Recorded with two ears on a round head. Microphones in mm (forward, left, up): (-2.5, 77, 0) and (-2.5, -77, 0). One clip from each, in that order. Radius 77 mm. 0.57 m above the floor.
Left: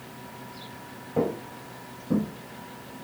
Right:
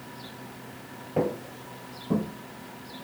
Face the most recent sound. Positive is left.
turn(degrees=-45)  # may be behind; listen again after turning